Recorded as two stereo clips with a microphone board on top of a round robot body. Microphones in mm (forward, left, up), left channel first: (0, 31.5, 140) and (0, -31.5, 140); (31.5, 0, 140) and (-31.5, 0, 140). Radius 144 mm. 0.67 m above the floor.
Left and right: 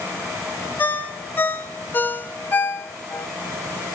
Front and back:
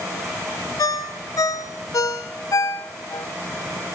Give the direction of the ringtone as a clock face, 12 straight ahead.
11 o'clock.